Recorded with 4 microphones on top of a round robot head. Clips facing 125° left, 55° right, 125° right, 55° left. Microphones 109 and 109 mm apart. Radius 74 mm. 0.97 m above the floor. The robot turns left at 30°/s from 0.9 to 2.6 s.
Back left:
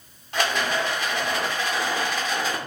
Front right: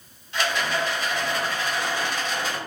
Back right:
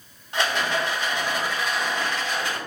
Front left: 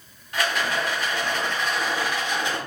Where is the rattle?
170° left, 0.6 m; by 2.6 s 120° left, 0.6 m.